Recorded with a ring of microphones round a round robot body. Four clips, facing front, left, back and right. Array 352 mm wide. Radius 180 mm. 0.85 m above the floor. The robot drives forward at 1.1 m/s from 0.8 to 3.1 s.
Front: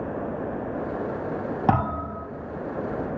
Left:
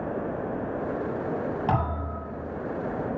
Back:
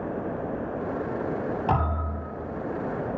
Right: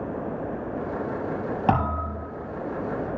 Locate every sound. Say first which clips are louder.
1.7 s a thud: right 3 dB, front 7 dB; 35° right, 4.5 m; by 2.3 s 40° right, 4 m